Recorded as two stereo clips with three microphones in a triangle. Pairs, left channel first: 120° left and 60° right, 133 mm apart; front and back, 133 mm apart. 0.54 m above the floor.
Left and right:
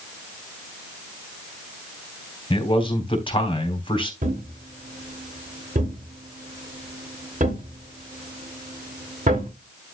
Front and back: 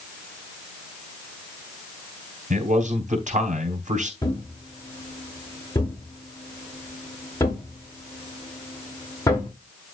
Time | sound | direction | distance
2.5 | a man speaking | 170° left | 3.5 m
4.2 | a thud | 65° right | 5.5 m